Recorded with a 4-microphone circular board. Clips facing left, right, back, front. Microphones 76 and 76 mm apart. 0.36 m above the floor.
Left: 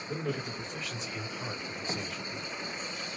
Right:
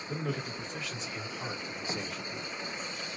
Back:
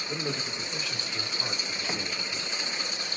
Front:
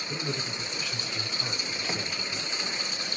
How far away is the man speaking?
About 1.4 m.